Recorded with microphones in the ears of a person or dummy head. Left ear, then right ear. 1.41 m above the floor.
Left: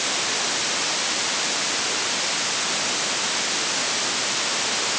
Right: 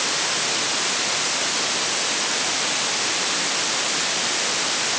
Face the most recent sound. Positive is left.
No sound to turn to.